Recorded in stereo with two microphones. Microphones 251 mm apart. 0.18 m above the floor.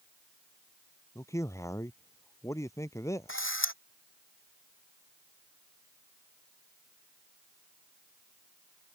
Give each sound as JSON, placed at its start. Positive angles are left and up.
{"t": 1.1, "sound": "a man speaking", "side_deg": 10}
{"t": 3.3, "sound": "a camera shutter", "side_deg": 50}